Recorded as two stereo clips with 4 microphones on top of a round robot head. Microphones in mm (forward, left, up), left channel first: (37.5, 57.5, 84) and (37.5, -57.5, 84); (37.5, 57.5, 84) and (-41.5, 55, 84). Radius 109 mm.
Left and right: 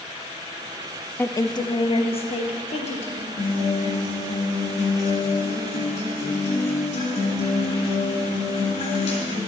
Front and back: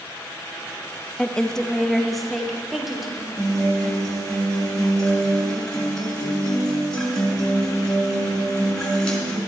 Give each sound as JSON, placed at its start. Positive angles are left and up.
{"t": 1.2, "sound": "a woman speaking", "azimuth_deg": 55, "distance_m": 0.6}
{"t": 3.4, "sound": "a guitar", "azimuth_deg": 80, "distance_m": 2.5}